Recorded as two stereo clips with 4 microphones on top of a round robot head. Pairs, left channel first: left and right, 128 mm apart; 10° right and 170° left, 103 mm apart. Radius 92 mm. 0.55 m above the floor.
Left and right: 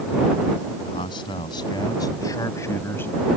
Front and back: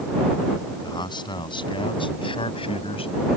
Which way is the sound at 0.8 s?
35° left.